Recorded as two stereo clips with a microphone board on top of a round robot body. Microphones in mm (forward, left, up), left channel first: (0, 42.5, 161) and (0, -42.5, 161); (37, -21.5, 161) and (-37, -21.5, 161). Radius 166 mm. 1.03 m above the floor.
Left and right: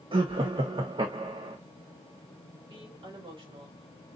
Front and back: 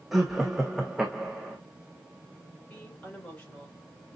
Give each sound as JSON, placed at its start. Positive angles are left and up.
{"t": 0.1, "sound": "laughter", "azimuth_deg": -95, "distance_m": 1.2}
{"t": 2.7, "sound": "a woman speaking", "azimuth_deg": -70, "distance_m": 4.0}